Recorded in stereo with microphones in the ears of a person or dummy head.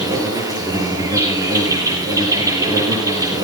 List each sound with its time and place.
0.0 s an insect: 20° right (ahead or behind), 6 m